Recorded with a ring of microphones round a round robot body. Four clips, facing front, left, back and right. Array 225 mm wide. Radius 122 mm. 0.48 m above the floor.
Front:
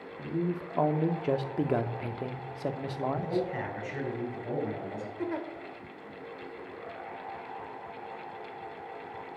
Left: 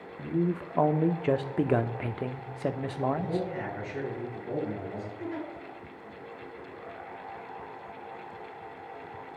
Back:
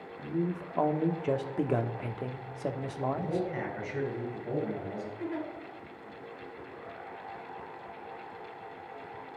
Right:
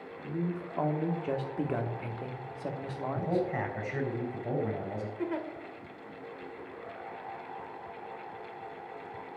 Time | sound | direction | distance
0.2 | a man speaking | 80° left | 0.9 m
3.1 | a man speaking | 80° right | 4 m
5.2 | a giggle | 40° right | 1.8 m